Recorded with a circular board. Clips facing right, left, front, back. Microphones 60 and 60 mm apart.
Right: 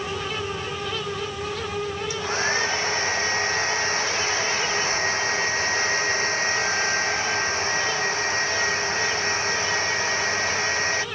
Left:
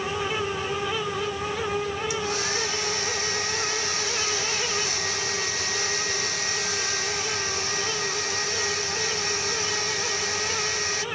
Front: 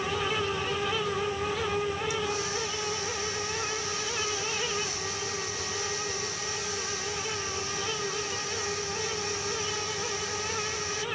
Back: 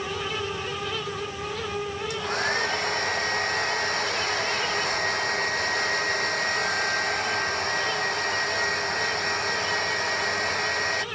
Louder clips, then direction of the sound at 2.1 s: Right 3 dB, back 4 dB; 145° right.